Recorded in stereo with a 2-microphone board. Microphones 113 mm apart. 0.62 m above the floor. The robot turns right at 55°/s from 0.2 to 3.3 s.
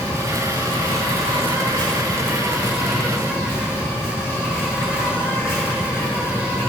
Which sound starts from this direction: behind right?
An insect, at 0.0 s.